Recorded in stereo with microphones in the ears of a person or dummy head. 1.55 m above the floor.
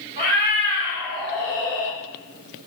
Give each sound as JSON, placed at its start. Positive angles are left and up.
{"t": 0.2, "sound": "a cat meowing", "side_deg": -35, "distance_m": 1.8}